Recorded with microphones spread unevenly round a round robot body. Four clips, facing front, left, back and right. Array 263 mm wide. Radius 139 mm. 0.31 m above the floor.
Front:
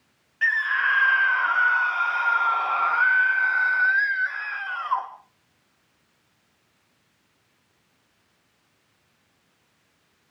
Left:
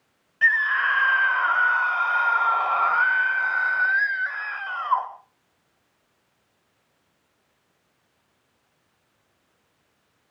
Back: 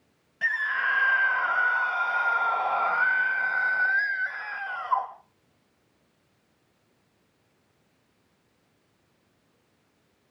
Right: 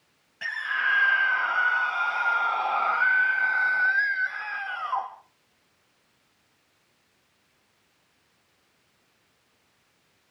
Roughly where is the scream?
Behind.